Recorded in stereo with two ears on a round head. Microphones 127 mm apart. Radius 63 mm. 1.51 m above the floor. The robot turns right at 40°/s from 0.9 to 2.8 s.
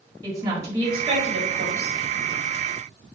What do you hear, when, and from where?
0.2 s a woman speaking: 155° right, 1.0 m; by 2.0 s 115° right, 1.0 m